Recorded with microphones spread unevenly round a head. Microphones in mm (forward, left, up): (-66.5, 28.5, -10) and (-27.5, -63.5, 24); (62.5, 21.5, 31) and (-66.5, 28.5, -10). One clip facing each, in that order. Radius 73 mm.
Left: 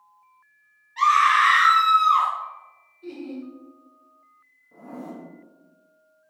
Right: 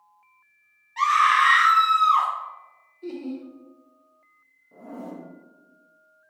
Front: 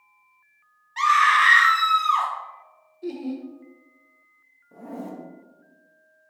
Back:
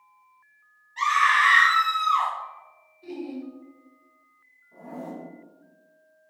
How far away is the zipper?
About 0.6 m.